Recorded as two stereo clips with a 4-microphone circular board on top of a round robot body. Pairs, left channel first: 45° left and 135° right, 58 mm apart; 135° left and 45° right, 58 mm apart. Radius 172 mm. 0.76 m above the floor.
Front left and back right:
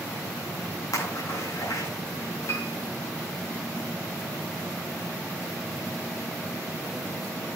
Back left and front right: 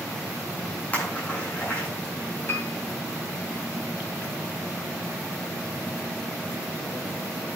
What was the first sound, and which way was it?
A splash, 70° left.